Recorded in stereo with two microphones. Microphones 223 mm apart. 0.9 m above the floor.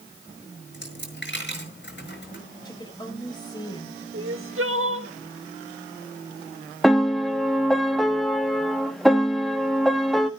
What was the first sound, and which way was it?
A dropped coin, 50° left (ahead or behind).